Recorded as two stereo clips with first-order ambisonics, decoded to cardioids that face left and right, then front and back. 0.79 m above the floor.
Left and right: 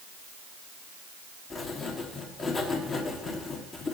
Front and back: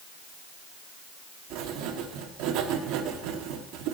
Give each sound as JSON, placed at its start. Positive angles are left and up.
{"t": 1.5, "sound": "writing", "azimuth_deg": 160, "distance_m": 1.4}